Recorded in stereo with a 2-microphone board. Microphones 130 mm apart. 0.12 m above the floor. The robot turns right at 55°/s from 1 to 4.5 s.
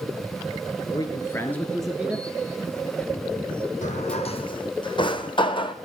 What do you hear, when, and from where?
0.9 s a man speaking: 135° left, 1.6 m; by 2.3 s 160° right, 1.6 m
3.8 s a drawer: 75° left (ahead or behind), 1.5 m; by 5.8 s 40° left (ahead or behind), 1.5 m